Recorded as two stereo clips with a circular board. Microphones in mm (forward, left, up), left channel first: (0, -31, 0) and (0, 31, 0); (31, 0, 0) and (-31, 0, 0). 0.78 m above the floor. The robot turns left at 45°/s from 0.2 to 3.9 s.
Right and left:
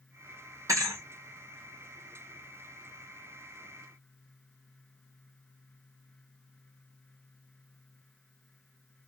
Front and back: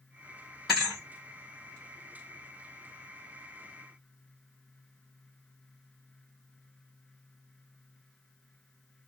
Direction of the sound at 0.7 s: 90° left.